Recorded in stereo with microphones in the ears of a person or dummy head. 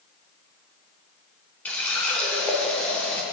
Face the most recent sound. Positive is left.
turn(degrees=5)  # may be behind; listen again after turning